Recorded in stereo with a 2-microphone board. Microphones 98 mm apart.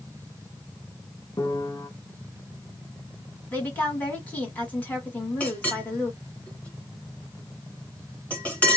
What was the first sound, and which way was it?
A piano, 35° left (ahead or behind).